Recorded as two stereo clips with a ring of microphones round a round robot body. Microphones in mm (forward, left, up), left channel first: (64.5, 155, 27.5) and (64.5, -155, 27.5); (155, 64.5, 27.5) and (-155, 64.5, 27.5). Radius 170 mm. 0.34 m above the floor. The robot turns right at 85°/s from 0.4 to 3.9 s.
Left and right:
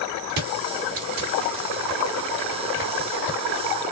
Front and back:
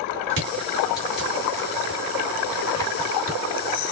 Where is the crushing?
125° right, 3.5 m; by 3.4 s 130° left, 3.5 m.